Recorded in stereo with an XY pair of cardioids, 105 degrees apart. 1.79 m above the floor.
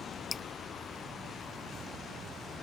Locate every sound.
0.3 s dripping: 35° left